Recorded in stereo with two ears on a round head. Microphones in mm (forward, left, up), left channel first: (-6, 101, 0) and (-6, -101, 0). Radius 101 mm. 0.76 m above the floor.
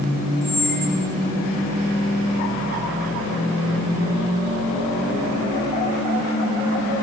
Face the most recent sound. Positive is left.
turn(degrees=45)  # may be behind; listen again after turning